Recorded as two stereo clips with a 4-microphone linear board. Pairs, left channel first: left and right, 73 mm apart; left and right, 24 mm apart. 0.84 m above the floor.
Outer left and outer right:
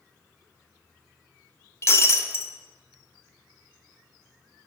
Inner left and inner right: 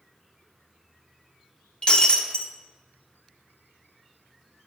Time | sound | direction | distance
1.8 | breaking glass | 35° left (ahead or behind) | 0.6 m